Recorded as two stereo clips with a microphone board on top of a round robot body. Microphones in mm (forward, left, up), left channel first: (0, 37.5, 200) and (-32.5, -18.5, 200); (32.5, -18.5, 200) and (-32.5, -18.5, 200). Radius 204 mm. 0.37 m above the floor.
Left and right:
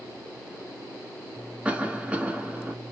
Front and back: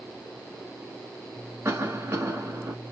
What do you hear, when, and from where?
1.6 s a cough: 175° left, 1.0 m